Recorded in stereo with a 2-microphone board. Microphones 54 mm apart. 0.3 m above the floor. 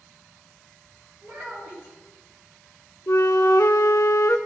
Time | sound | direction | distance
1.2 | a child speaking | 35° right (ahead or behind) | 4 m
3.1 | a flute | 55° left (ahead or behind) | 0.7 m